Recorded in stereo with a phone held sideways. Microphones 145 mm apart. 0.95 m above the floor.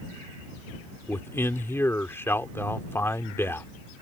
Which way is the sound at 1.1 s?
20° left (ahead or behind).